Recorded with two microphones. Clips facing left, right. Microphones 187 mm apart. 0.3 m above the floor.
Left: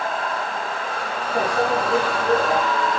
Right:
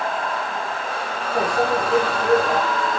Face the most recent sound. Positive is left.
turn(degrees=0)  # may be behind; listen again after turning